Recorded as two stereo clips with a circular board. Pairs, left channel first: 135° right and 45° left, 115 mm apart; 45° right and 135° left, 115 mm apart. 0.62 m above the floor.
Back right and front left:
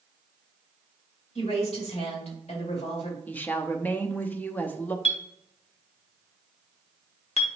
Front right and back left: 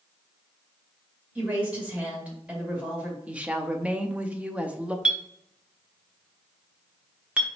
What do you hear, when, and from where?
1.4 s a woman speaking: 150° right, 2 m
3.3 s a woman speaking: 170° right, 0.6 m
5.0 s a clink: 145° right, 0.8 m